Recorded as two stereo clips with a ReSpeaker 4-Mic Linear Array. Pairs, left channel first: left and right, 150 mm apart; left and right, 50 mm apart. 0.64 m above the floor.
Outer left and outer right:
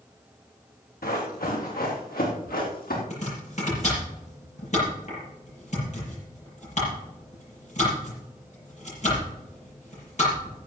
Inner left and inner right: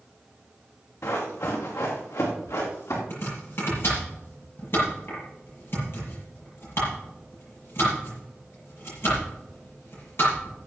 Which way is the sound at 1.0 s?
75° left (ahead or behind).